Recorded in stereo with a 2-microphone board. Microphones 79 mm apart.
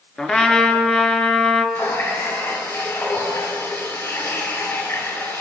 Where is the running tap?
40° left (ahead or behind), 2.5 m.